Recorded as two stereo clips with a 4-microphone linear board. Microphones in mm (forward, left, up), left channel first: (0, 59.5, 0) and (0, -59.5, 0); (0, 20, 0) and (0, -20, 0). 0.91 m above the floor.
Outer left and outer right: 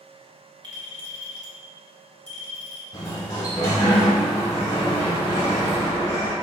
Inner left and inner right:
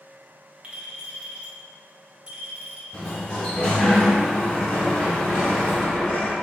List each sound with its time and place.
0.6 s a clink: 35° right (ahead or behind), 1.0 m
2.9 s a sliding door: 30° left (ahead or behind), 1.3 m